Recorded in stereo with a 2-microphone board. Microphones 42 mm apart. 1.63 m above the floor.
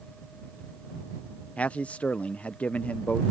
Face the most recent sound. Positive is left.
turn(degrees=35)  # may be behind; listen again after turning